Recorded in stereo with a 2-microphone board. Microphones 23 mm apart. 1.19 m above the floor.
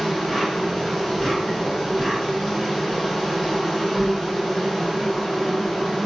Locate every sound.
0.0 s an insect: 10° left (ahead or behind), 1.2 m